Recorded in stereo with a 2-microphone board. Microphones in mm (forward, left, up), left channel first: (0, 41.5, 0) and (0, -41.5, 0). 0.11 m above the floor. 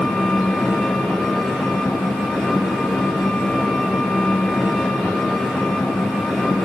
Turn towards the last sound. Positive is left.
turn(degrees=0)  # may be behind; listen again after turning